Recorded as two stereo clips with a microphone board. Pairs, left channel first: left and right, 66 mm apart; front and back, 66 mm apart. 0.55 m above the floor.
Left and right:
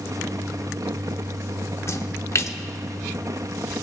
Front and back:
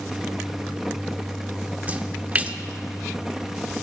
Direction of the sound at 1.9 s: 120° left.